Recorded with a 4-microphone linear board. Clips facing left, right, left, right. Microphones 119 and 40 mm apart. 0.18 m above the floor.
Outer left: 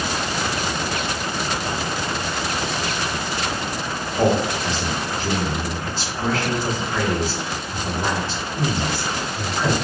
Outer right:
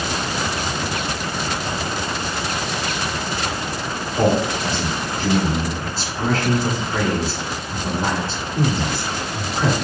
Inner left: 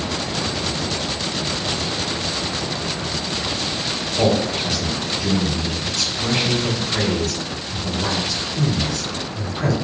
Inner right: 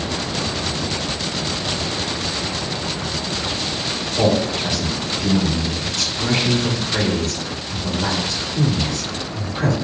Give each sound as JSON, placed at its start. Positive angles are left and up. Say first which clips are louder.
{"t": 4.2, "sound": "a man speaking", "louder": "outer right 1 dB, inner right 1 dB", "side_deg": -40, "distance_m": 1.2}